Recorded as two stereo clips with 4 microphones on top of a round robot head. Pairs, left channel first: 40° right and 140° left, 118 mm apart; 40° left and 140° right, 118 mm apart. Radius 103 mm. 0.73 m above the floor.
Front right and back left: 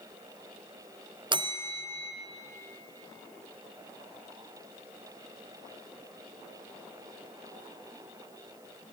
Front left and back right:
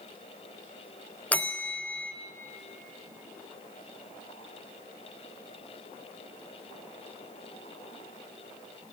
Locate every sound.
1.3 s a bell: 115° left, 0.8 m